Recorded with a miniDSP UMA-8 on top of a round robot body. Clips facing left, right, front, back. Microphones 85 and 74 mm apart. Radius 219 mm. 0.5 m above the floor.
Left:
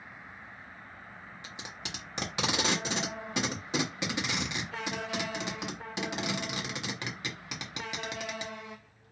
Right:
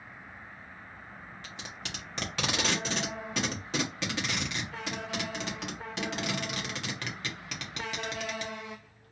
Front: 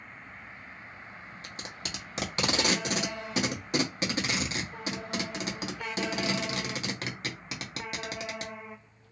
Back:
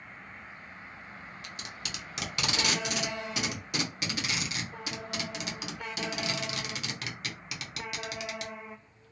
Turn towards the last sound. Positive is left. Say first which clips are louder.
# even, front 3 dB
turn(degrees=25)